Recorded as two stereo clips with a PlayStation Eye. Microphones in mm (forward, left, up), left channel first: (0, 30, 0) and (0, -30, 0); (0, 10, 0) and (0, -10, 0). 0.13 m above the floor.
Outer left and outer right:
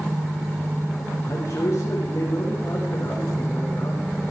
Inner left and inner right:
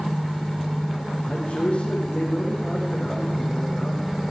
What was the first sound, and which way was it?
A man speaking, 50° left (ahead or behind).